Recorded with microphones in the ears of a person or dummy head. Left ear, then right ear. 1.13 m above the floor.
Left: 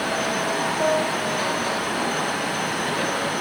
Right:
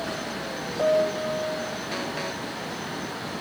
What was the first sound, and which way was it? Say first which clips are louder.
A piano: right 3 dB; 75° right (ahead or behind).